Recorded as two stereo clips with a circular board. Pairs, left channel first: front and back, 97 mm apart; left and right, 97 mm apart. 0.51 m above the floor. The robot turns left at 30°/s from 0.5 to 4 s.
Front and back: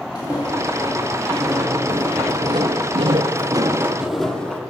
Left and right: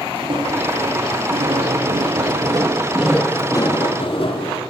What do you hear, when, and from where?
0.1 s footsteps: 50° right, 2.5 m; by 4.6 s 75° left, 1.2 m